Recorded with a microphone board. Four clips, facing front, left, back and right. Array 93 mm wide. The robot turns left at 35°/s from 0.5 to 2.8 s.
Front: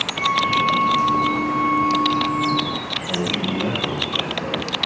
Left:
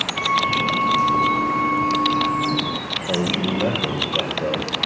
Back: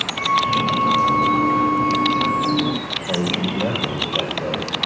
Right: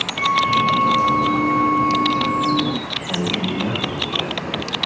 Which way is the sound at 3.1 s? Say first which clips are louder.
Left 1 dB, back 2 dB; 105° left.